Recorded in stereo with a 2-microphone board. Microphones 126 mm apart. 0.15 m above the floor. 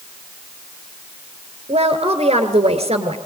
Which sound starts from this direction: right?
A woman speaking, at 1.7 s.